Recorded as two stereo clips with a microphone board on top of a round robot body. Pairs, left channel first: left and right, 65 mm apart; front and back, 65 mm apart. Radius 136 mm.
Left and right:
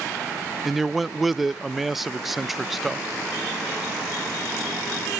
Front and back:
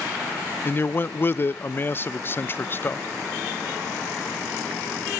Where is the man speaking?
5° right, 0.5 m.